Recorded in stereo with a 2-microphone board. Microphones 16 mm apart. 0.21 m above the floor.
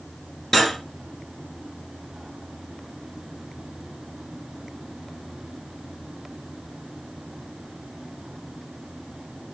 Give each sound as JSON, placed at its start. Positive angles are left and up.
{"t": 0.5, "sound": "cutlery clinking", "side_deg": 20, "distance_m": 1.9}